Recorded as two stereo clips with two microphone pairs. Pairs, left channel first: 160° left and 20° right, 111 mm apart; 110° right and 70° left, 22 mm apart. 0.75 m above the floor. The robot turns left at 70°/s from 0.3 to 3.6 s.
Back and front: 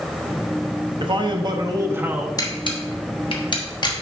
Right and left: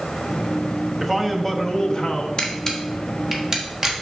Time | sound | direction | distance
1.0 | a man speaking | 10° right | 0.8 m
2.4 | a camera shutter | 155° right | 1.2 m